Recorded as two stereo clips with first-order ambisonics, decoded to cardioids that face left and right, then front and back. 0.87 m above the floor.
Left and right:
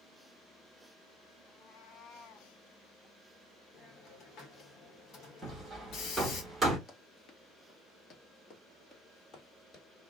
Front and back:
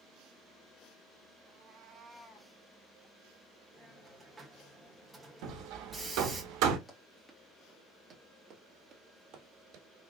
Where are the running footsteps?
65° left, 0.9 m; by 9.8 s 160° left, 1.6 m.